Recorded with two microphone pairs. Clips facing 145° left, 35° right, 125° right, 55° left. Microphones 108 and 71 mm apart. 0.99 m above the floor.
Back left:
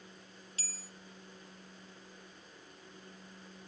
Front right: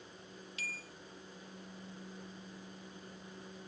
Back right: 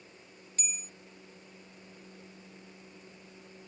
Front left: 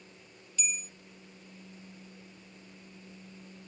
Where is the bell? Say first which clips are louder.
Front right 7 dB, front left 5 dB; 165° right, 0.5 m.